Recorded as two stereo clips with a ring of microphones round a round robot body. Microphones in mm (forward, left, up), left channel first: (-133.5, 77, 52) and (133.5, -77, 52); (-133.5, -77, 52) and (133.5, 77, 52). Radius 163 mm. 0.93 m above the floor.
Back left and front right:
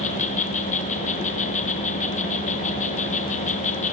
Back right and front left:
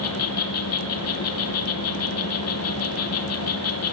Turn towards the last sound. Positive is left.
turn(degrees=-150)